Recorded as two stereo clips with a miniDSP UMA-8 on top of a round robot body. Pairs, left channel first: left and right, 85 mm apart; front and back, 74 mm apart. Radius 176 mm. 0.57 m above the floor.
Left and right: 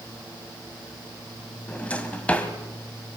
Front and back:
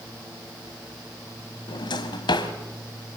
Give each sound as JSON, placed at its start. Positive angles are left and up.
{"t": 1.7, "sound": "a drawer", "azimuth_deg": 15, "distance_m": 1.9}